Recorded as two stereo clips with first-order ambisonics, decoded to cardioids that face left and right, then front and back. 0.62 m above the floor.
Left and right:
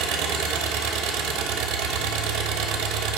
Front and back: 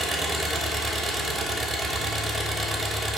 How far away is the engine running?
About 0.7 m.